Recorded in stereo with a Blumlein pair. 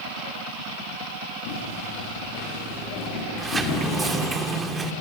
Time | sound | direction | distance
1.5 | footsteps | 55° left | 7.5 m
3.4 | a sliding door | 10° right | 2.5 m